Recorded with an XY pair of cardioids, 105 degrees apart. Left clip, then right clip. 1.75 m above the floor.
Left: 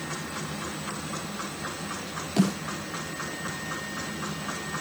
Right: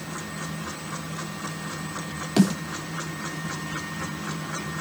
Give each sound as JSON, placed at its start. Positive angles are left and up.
{"t": 2.4, "sound": "a snare drum", "azimuth_deg": -40, "distance_m": 5.0}